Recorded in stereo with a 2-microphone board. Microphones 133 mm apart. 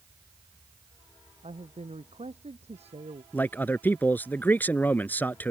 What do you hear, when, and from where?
1.4 s a man speaking: 50° right (ahead or behind)
3.3 s a man speaking: 15° left (ahead or behind)